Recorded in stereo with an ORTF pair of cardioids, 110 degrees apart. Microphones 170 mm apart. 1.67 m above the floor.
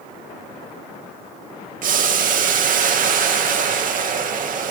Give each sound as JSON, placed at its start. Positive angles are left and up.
{"t": 1.8, "sound": "boiling", "azimuth_deg": -55, "distance_m": 2.0}